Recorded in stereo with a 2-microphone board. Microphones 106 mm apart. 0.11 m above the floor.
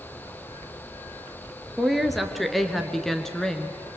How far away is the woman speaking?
About 2 m.